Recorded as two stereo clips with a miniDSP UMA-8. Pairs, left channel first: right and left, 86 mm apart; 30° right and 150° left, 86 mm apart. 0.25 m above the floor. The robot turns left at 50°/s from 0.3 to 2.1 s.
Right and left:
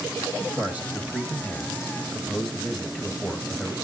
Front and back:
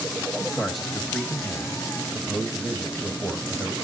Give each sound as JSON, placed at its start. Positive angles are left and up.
{"t": 0.4, "sound": "a man speaking", "azimuth_deg": 80, "distance_m": 1.2}